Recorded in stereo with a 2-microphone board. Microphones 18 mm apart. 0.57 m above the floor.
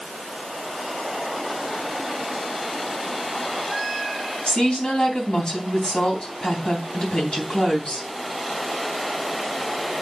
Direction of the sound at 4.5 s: 80° left.